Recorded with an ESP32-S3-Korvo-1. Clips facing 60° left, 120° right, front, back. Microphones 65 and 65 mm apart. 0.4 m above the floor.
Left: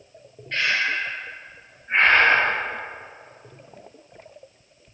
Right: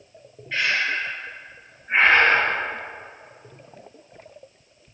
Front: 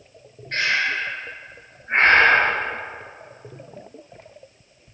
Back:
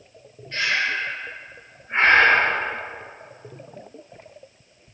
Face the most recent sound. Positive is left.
turn(degrees=-40)